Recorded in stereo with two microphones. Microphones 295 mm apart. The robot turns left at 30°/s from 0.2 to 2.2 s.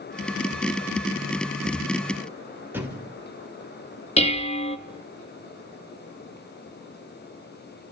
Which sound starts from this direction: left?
Dishes clattering, at 4.2 s.